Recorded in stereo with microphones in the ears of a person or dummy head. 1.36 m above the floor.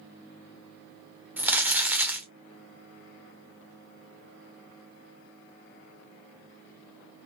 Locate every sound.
1.4 s crumpling: 5° right (ahead or behind), 0.6 m